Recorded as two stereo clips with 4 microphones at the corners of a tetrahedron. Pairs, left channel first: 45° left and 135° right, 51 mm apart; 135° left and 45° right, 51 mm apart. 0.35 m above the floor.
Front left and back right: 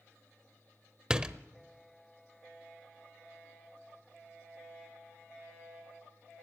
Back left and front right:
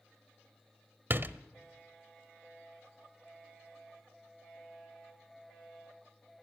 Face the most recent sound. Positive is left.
turn(degrees=-65)